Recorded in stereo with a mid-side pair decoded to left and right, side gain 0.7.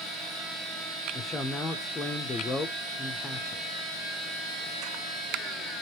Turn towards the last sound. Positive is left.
turn(degrees=20)